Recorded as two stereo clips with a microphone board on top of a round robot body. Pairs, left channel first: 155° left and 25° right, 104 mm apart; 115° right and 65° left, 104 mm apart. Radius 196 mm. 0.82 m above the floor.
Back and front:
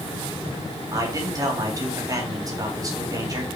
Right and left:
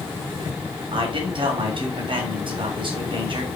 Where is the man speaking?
35° left, 4 m.